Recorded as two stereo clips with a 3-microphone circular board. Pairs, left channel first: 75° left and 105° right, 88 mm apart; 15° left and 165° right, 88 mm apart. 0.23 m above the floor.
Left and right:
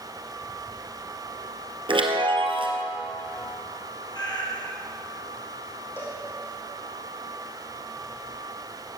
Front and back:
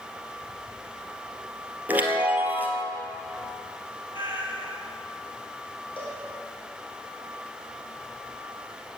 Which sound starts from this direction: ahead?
A cowbell, at 6.0 s.